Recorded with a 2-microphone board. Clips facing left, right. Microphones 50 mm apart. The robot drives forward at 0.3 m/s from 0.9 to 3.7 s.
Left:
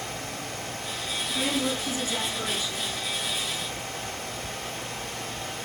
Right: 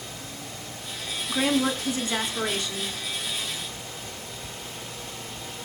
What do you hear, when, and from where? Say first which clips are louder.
1.3 s a woman speaking: right 5 dB; 70° right (ahead or behind), 3 m; by 3.0 s 65° right (ahead or behind), 3 m